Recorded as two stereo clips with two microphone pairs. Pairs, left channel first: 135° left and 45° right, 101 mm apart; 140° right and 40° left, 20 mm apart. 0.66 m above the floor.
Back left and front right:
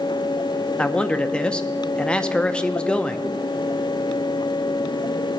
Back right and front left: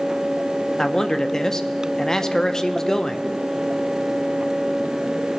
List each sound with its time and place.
0.8 s a man speaking: 155° right, 0.5 m